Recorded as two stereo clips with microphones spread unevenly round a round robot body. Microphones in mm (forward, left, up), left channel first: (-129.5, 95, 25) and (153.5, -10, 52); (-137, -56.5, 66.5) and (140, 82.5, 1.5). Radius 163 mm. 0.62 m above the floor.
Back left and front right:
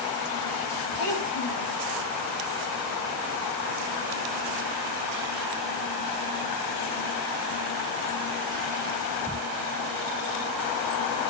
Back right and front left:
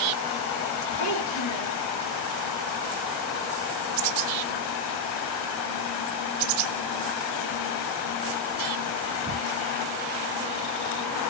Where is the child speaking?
175° left, 9 m.